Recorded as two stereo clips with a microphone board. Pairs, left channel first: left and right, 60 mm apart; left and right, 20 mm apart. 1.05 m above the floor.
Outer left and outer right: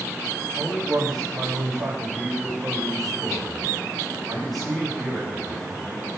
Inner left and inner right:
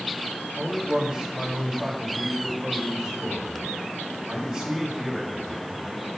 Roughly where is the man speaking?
Right.